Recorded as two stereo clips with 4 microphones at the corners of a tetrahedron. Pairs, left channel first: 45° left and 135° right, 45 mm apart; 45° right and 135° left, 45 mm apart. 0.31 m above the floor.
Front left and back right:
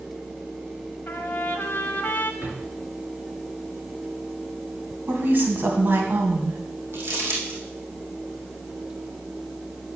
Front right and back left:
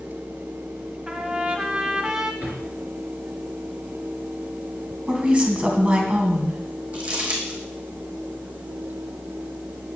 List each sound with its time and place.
1.1 s a trumpet: 70° left, 1.4 m
2.4 s a drawer: 175° right, 3 m
5.1 s a woman speaking: 165° right, 2.5 m
6.9 s crumpling: 165° right, 3.5 m